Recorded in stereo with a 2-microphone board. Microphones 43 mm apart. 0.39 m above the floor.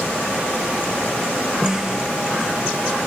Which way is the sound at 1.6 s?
10° right (ahead or behind).